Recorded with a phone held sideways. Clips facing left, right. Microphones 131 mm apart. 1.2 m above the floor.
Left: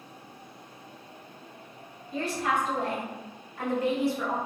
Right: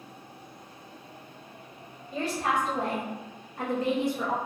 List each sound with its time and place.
2.1 s a woman speaking: 65° right (ahead or behind), 2.0 m; by 4.3 s 5° right (ahead or behind), 0.9 m